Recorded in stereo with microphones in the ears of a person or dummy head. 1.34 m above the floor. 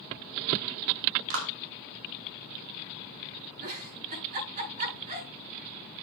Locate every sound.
1.3 s a clap: 80° right, 3 m
3.6 s a giggle: 60° right (ahead or behind), 8 m